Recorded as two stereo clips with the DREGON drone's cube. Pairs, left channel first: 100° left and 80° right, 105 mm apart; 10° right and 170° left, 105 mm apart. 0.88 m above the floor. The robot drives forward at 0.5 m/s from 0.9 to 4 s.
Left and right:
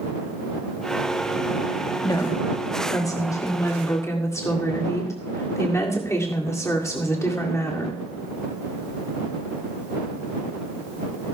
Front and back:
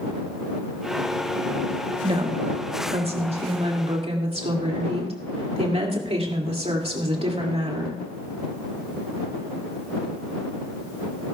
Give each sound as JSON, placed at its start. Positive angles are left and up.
{"t": 2.0, "sound": "a woman speaking", "azimuth_deg": 145, "distance_m": 1.3}